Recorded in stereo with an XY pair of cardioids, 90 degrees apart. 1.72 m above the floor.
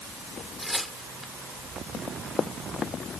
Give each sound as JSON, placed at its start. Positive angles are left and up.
{"t": 0.6, "sound": "tearing paper", "azimuth_deg": 5}
{"t": 1.9, "sound": "running footsteps", "azimuth_deg": 50}